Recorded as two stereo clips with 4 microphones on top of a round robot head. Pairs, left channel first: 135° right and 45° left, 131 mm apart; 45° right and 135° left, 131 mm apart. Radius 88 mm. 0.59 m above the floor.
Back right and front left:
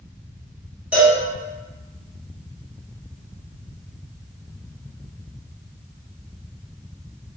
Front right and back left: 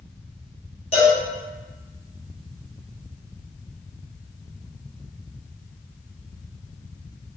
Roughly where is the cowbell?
Ahead right.